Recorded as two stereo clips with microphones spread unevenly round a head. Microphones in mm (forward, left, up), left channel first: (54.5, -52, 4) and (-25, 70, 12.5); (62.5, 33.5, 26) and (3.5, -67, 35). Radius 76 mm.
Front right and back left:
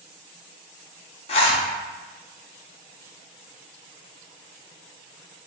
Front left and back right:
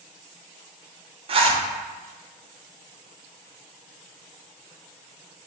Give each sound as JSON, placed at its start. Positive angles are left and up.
{"t": 1.3, "sound": "a zipper", "azimuth_deg": -90, "distance_m": 0.7}